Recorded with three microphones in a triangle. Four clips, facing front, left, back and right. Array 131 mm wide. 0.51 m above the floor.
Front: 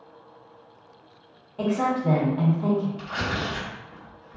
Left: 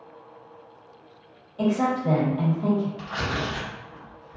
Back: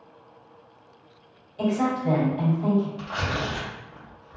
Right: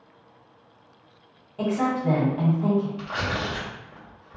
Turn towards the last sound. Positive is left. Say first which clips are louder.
# even, even
turn(degrees=-105)